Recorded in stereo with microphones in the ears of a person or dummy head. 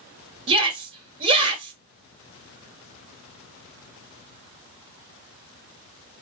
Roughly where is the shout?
Right.